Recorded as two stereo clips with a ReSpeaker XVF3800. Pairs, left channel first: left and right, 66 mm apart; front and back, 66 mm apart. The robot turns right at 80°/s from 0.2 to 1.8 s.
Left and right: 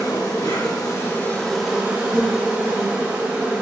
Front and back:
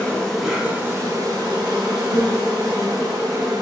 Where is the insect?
75° left, 0.9 m; by 3.6 s 160° right, 0.9 m.